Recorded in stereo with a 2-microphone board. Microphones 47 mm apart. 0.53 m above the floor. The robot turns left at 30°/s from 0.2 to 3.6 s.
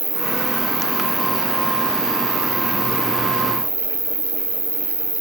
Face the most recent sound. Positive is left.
turn(degrees=-170)